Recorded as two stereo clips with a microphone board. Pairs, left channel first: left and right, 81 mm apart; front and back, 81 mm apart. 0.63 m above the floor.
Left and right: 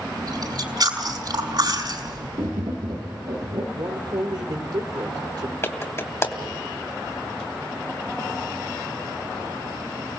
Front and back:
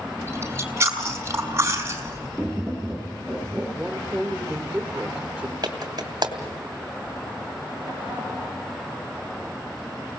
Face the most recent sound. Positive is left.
turn(degrees=150)